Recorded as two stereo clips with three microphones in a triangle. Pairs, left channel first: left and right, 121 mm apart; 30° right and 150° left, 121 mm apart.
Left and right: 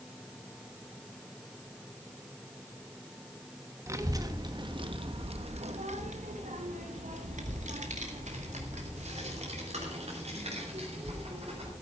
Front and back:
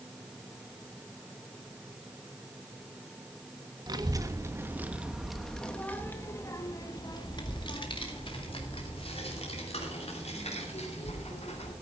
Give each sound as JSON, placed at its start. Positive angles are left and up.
{"t": 3.9, "sound": "a child speaking", "azimuth_deg": -155, "distance_m": 1.4}